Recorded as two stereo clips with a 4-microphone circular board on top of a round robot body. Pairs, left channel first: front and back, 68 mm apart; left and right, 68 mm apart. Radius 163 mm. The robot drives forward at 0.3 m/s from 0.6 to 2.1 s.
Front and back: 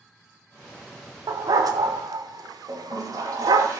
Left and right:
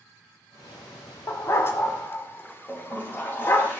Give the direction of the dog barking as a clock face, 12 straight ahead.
7 o'clock.